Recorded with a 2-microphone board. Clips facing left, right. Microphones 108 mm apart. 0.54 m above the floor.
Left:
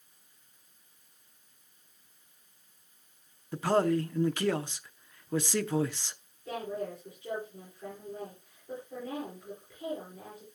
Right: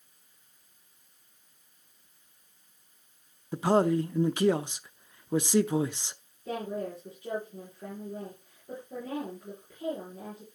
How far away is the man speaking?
About 0.6 m.